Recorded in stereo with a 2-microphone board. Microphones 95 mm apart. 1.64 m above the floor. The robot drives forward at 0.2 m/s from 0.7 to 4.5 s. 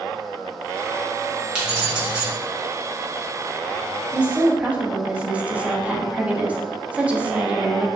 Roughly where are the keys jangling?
Centre.